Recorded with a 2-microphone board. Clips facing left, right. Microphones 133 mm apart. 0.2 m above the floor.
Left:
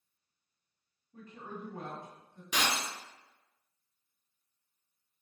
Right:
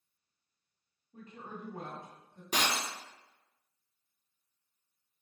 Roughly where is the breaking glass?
Right.